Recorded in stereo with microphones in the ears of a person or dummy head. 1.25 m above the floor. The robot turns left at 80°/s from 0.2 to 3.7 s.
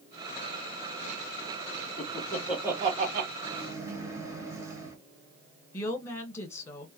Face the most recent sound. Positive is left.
turn(degrees=15)  # may be behind; listen again after turning